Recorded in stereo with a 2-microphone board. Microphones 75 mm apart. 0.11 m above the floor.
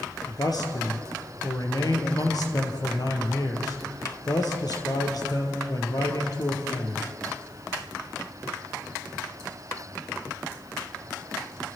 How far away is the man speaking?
About 2.5 m.